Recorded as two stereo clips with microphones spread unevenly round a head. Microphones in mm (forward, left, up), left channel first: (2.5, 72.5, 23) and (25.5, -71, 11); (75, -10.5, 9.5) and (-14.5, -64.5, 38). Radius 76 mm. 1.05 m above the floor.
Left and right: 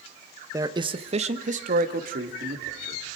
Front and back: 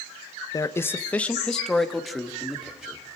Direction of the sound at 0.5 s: 15° right.